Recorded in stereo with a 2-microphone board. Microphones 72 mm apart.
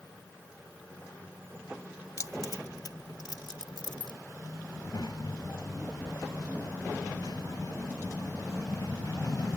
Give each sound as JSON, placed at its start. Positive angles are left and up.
{"t": 2.2, "sound": "keys jangling", "side_deg": 45}
{"t": 4.7, "sound": "a child speaking", "side_deg": 55}